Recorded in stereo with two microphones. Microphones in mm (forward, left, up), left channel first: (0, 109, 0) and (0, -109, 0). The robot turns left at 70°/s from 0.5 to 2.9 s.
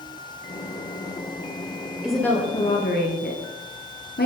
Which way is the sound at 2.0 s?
175° right.